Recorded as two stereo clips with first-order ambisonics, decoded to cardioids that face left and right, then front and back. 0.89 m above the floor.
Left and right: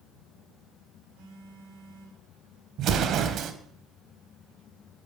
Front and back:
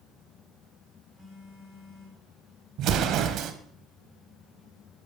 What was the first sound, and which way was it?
A phone buzzing, 90° right.